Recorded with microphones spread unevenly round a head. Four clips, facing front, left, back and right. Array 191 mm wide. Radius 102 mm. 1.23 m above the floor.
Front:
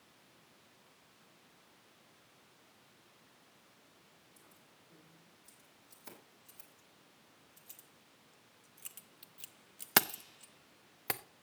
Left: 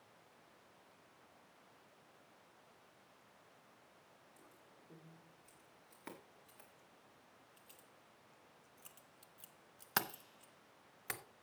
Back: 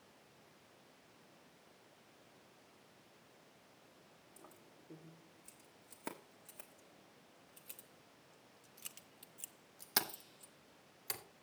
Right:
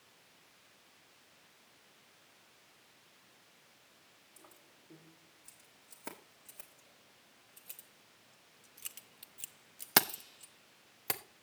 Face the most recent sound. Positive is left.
turn(degrees=-30)